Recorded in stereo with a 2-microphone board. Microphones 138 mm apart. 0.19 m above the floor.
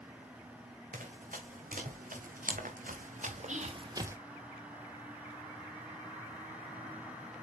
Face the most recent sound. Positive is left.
turn(degrees=-60)  # may be behind; listen again after turning